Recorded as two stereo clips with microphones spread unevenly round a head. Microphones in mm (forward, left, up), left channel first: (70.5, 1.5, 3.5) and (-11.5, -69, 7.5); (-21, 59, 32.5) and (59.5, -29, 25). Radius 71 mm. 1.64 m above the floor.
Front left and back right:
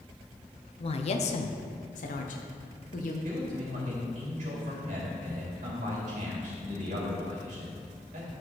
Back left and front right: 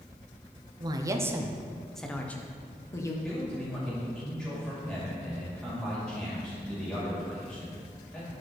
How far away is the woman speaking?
About 0.8 m.